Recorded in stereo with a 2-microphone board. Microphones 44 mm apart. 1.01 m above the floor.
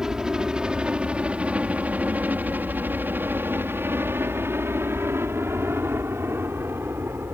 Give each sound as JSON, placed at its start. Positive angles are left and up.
{"t": 0.0, "sound": "a helicopter", "side_deg": -15}